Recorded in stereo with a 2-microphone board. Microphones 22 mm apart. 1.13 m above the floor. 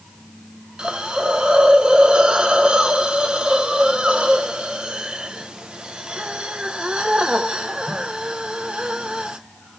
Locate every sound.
0.8 s a hiss: 45° right (ahead or behind), 0.9 m